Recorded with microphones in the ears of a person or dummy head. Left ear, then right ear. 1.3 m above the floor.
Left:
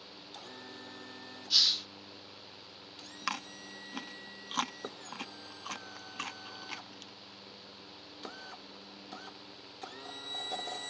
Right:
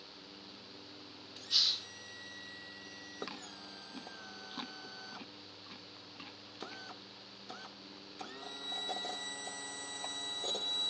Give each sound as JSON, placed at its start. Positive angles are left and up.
{"t": 1.5, "sound": "a hiss", "side_deg": 10}
{"t": 3.3, "sound": "chewing", "side_deg": 50}